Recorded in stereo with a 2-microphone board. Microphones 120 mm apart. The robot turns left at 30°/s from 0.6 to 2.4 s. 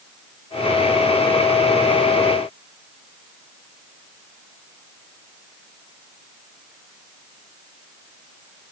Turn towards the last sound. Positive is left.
No sound to turn to.